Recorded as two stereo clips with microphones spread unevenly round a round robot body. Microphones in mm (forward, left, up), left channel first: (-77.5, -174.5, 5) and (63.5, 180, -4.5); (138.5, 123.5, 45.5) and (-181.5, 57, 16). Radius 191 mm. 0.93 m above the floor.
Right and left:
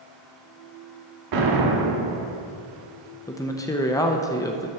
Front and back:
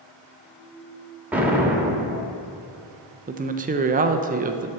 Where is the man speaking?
175° left, 0.6 m.